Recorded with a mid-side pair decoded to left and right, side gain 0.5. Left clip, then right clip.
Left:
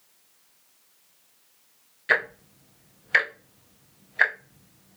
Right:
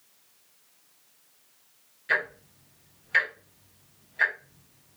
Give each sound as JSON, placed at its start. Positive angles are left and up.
{"t": 2.1, "sound": "ticking", "azimuth_deg": 50, "distance_m": 0.6}